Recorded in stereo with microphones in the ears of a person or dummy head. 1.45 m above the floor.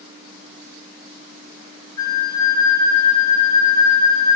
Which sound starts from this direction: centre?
A flute, at 2.0 s.